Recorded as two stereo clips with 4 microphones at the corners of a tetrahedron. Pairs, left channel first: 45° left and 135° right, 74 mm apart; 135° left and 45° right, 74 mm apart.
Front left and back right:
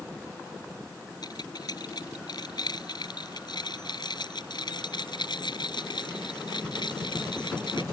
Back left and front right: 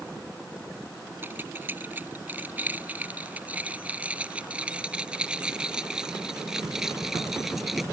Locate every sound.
1.2 s keys jangling: 20° left; by 7.8 s 40° left